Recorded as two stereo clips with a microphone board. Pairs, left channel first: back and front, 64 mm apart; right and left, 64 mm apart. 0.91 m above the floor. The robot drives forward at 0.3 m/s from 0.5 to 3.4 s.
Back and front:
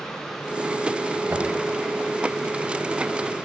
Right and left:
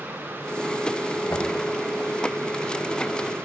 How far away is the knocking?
About 3 m.